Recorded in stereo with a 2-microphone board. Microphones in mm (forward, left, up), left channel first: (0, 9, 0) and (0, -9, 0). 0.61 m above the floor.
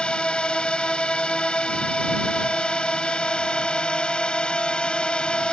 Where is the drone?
55° left (ahead or behind).